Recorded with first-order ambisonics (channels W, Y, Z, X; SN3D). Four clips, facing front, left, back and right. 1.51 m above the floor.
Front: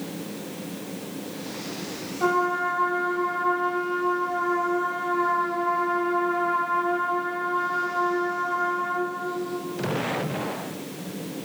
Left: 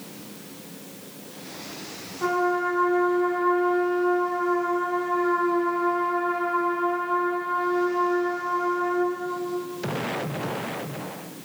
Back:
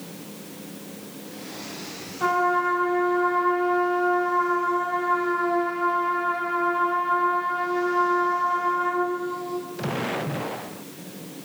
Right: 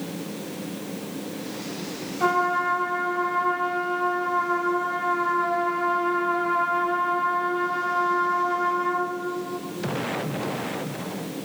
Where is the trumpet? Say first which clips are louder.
Right 1 dB, back 2 dB; 85° right, 1.2 m.